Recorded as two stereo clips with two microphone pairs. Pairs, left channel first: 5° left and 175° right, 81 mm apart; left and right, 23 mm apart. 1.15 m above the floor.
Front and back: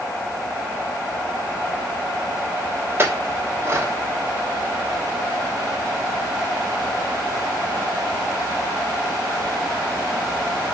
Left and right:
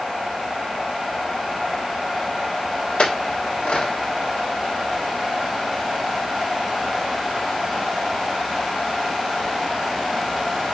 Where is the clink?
125° left, 1.4 m.